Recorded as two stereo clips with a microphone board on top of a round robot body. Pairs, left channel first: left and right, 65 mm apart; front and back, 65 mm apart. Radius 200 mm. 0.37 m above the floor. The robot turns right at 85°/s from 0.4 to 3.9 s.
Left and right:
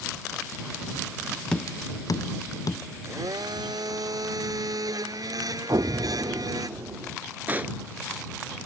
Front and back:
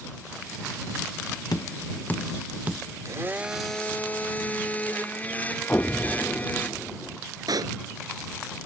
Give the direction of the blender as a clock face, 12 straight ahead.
5 o'clock.